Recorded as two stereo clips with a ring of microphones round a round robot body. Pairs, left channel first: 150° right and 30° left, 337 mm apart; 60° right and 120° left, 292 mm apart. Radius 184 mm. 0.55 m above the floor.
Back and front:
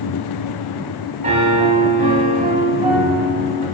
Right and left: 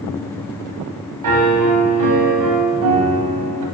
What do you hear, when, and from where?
1.2 s a piano: 100° left, 1.3 m